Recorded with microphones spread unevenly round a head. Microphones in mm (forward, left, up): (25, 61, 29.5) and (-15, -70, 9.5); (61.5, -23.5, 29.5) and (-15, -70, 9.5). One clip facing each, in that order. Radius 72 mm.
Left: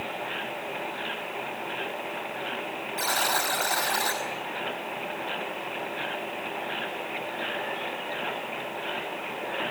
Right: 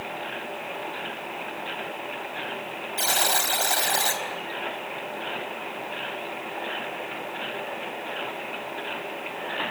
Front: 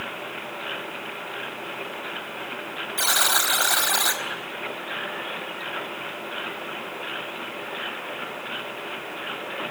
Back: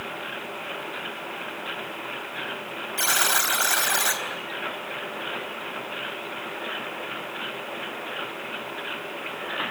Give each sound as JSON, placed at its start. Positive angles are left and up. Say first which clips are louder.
{"t": 3.0, "sound": "a buzzer", "louder": "right 1 dB, front 1 dB", "azimuth_deg": -45, "distance_m": 4.5}